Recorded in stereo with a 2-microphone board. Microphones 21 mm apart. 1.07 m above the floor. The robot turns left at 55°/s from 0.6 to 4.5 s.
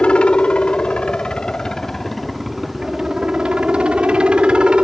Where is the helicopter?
100° left; by 4.8 s 115° right.